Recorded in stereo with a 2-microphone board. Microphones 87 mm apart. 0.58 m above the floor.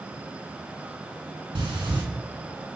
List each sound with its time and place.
1.6 s breathing: 70° right (ahead or behind), 3.5 m